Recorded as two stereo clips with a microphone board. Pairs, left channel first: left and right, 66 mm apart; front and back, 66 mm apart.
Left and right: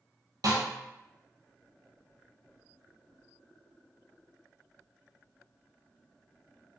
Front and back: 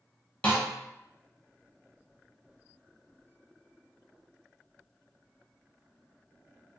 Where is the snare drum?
65° right, 1.1 m.